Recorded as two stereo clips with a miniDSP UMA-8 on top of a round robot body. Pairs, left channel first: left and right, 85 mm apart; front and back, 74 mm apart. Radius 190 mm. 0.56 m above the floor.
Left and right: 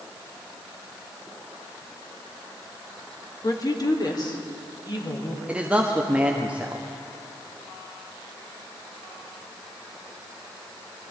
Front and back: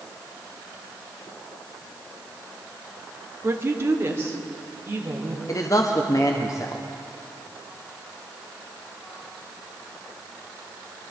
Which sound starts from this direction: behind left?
A woman speaking, at 3.4 s.